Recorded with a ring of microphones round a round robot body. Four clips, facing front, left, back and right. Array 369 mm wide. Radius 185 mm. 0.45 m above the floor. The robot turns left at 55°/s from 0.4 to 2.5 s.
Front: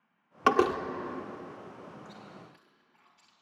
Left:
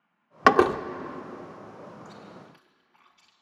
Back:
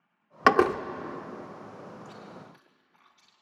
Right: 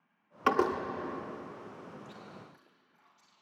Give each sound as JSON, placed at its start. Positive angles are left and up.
{"t": 0.5, "sound": "a door slam", "azimuth_deg": 115, "distance_m": 0.7}
{"t": 2.0, "sound": "chewing", "azimuth_deg": 140, "distance_m": 4.0}